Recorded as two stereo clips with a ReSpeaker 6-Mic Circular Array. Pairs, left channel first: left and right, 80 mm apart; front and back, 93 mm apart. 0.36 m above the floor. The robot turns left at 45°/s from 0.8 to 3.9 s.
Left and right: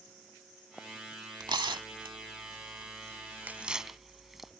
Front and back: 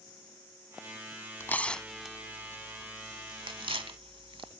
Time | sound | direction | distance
1.4 | tearing paper | 65° right | ?